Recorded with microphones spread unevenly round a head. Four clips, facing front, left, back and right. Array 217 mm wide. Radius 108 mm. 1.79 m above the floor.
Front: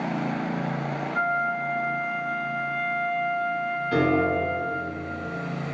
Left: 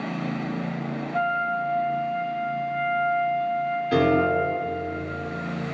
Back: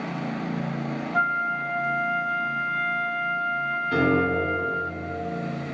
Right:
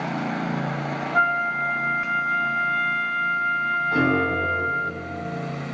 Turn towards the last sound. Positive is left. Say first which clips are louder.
# left 3 dB, even
turn(degrees=95)